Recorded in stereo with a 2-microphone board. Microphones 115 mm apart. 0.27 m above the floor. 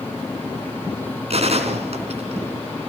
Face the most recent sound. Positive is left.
turn(degrees=-60)  # may be behind; listen again after turning